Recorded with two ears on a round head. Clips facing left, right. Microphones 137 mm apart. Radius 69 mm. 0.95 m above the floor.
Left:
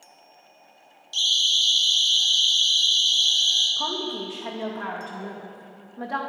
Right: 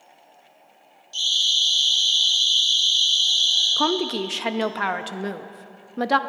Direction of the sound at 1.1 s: 35° left (ahead or behind).